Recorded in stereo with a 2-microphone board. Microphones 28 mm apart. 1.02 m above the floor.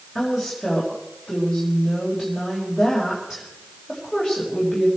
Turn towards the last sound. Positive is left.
turn(degrees=-5)  # may be behind; listen again after turning